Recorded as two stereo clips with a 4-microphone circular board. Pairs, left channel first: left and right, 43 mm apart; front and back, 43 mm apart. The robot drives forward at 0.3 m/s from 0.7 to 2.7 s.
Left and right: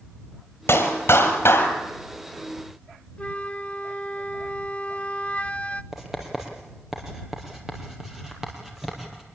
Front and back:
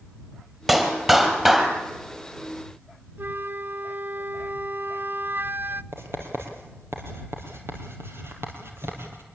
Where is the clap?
100° left, 4 m.